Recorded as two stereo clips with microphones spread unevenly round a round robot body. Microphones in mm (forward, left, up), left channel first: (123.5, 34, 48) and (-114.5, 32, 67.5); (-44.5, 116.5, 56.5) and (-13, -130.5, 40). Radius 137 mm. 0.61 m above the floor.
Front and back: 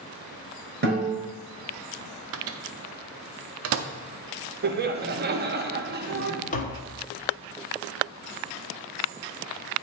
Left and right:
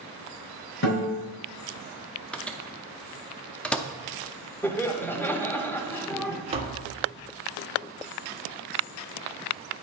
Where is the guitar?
135° left, 3.5 m.